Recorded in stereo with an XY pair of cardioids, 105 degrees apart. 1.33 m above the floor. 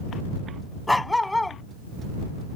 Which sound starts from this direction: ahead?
A dog barking, at 0.9 s.